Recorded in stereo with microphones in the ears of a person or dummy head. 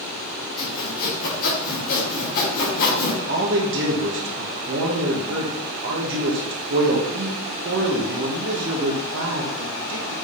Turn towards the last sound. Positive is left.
turn(degrees=-55)  # may be behind; listen again after turning